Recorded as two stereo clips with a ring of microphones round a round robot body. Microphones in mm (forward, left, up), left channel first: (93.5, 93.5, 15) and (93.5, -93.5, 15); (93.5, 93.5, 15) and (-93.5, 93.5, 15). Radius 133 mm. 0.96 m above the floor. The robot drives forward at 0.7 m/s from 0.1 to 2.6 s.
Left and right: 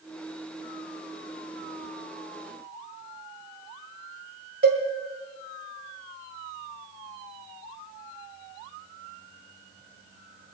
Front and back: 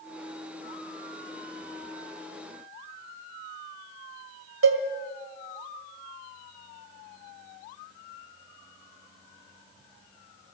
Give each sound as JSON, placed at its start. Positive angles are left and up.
{"t": 4.6, "sound": "a cowbell", "azimuth_deg": -150, "distance_m": 1.7}